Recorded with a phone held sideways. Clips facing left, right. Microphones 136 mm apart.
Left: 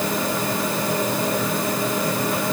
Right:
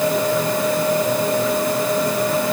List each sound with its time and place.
Only background noise.